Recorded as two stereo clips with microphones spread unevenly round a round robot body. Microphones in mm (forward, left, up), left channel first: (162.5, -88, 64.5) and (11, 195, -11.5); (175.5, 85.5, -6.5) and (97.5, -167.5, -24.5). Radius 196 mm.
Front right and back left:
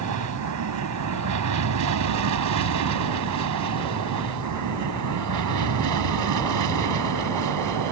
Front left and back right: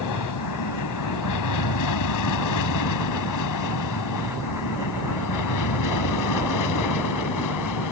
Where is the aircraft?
90° left; by 7.9 s 100° left.